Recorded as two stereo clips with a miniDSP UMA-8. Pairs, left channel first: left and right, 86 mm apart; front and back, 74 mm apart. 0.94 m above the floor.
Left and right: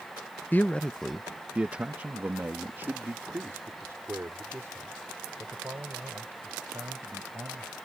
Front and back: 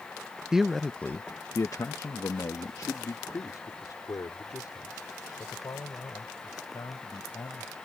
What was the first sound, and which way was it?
A man speaking, 110° left.